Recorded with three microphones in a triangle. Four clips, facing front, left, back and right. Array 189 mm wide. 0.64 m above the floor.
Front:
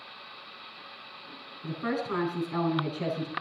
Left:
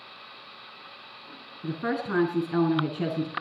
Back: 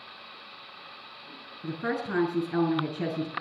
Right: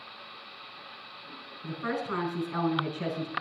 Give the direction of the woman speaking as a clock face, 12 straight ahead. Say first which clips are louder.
Left 3 dB, even; 8 o'clock.